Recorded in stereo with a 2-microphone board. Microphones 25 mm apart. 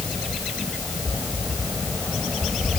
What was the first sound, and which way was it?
Only background noise.